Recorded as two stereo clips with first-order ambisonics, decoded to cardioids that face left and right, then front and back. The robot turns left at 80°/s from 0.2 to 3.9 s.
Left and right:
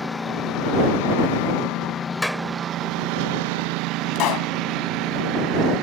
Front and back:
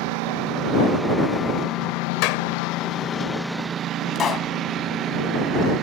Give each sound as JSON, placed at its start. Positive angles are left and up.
{"t": 0.0, "sound": "a lawn mower", "azimuth_deg": 170}
{"t": 2.2, "sound": "a clap", "azimuth_deg": 5}
{"t": 4.2, "sound": "a pop", "azimuth_deg": 60}